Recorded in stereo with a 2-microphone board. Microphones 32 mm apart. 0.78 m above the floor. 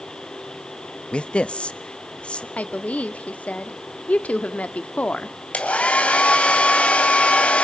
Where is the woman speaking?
50° left (ahead or behind), 1.3 m.